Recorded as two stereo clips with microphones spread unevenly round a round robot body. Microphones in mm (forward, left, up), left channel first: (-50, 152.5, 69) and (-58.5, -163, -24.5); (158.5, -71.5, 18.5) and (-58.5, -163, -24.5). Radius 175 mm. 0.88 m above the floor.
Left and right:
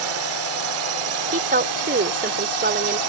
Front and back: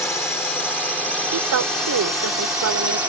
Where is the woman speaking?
155° right.